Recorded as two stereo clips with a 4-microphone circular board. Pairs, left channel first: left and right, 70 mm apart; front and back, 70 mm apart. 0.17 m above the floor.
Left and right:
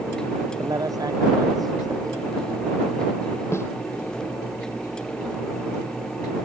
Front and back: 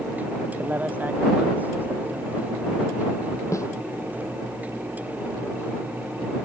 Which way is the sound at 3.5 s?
40° left.